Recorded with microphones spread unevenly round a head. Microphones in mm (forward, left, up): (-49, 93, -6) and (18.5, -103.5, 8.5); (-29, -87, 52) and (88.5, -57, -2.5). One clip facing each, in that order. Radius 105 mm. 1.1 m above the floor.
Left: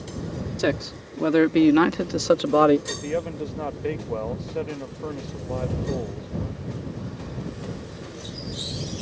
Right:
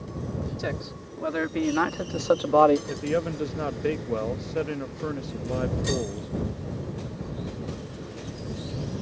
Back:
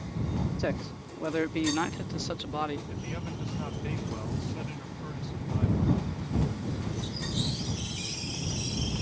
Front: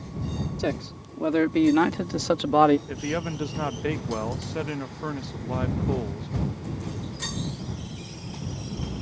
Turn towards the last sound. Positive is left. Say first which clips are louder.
# right 1 dB, front 8 dB
turn(degrees=5)